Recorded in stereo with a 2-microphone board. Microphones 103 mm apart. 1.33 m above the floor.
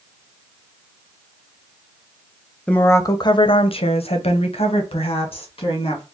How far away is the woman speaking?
About 0.5 m.